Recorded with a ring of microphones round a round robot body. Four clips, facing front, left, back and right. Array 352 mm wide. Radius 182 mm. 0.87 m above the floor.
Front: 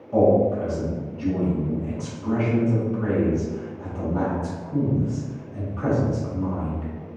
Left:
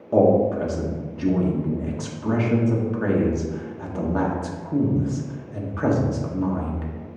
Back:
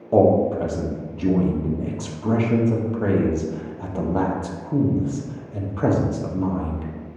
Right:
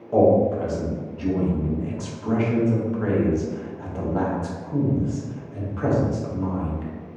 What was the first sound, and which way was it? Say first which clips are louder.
A man speaking: even, back 2 dB; 155° left.